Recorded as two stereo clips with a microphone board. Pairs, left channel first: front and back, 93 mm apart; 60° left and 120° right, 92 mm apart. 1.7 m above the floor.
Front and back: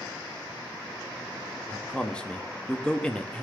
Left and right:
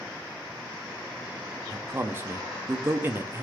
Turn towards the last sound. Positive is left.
turn(degrees=-70)